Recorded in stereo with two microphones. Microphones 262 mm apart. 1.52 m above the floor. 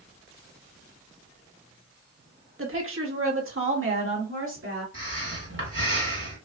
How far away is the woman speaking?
About 1.2 m.